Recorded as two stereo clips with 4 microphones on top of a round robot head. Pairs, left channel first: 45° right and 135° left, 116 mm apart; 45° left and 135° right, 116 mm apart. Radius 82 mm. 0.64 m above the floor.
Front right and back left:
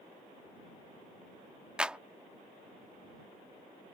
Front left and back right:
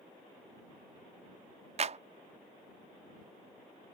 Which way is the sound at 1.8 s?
145° right.